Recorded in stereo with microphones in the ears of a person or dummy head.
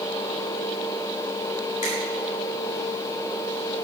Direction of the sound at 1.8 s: 45° left (ahead or behind).